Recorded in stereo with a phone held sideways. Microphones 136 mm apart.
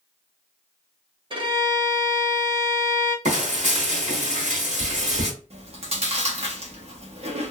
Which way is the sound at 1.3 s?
40° right (ahead or behind).